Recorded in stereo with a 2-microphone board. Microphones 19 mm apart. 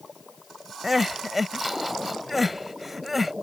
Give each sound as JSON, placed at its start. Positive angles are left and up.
{"t": 0.8, "sound": "crying", "side_deg": -5}